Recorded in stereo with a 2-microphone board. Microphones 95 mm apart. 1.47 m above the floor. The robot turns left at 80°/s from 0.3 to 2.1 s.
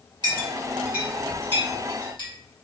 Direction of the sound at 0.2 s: 50° right (ahead or behind).